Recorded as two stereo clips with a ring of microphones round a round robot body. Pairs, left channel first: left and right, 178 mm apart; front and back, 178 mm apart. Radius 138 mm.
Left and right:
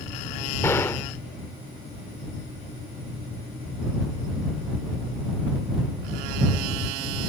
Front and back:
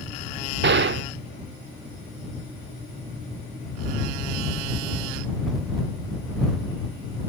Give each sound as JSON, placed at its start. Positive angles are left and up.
{"t": 0.6, "sound": "a gunshot", "azimuth_deg": 170}